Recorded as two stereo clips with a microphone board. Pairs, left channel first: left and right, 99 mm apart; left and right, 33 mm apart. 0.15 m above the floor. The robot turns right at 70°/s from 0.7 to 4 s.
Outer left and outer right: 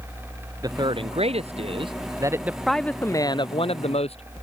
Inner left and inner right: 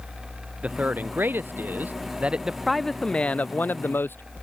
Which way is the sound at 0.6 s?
140° right.